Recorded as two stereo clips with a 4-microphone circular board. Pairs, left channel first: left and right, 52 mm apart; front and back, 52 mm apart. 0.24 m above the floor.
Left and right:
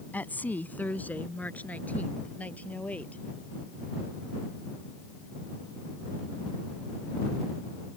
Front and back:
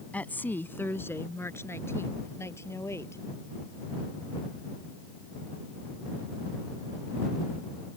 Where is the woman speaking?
50° left; by 3.2 s 30° left.